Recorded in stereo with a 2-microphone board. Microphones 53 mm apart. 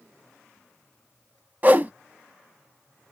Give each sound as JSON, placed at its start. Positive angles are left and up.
{"t": 1.6, "sound": "a whoosh", "side_deg": -35, "distance_m": 0.5}